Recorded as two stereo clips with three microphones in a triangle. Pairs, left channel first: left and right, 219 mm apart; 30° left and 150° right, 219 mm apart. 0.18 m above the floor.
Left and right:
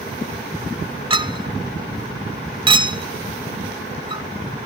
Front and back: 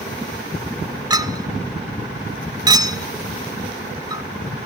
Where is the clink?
110° right, 0.7 m.